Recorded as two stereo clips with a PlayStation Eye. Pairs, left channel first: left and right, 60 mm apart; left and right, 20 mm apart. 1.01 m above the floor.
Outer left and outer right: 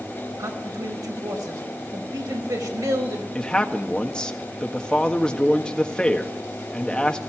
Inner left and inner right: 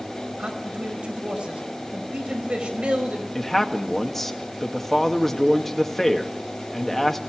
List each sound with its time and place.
0.4 s a man speaking: 85° right, 5 m
3.4 s a man speaking: 15° left (ahead or behind), 1.7 m